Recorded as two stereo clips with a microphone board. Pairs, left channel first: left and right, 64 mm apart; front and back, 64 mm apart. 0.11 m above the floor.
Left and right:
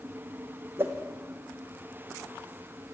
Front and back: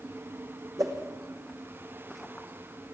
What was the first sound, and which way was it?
A whoosh, 145° right.